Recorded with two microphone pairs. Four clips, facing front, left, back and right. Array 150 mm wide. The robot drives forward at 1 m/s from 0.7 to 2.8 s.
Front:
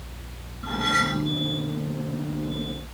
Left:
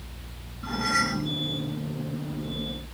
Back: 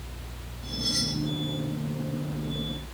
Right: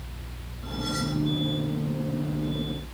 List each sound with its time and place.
0.6 s cutlery clinking: 20° left; by 1.3 s 25° left